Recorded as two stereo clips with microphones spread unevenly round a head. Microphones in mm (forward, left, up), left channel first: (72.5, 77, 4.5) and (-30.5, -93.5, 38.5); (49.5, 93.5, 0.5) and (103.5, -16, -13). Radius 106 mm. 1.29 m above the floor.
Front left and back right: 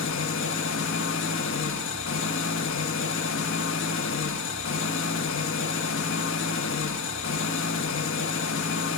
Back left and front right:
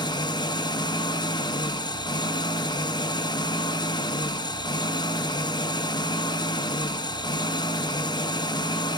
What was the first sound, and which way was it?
An engine running, 80° left.